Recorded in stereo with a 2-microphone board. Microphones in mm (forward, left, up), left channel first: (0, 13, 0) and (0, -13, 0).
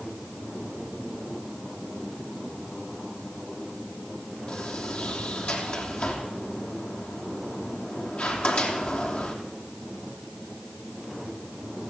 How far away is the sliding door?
About 3.5 m.